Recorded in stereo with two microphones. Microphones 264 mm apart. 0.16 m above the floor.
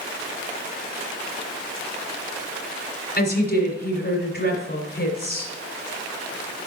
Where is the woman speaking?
35° left (ahead or behind), 1.9 m.